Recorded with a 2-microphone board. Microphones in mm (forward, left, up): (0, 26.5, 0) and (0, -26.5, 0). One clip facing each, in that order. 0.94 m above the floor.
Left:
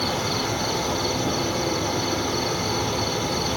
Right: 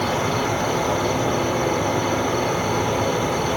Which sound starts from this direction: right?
An insect, at 0.0 s.